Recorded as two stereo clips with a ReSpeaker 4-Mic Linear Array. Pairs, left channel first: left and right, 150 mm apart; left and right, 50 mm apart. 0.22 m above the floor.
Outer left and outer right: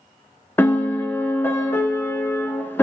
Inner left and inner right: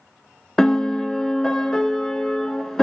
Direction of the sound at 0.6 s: 15° left (ahead or behind).